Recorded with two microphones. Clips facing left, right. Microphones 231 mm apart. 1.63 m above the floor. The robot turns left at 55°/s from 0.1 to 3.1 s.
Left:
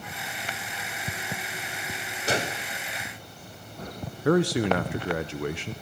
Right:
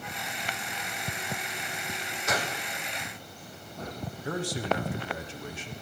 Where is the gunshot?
30° left (ahead or behind), 1.1 m; by 2.7 s 10° left (ahead or behind), 1.1 m.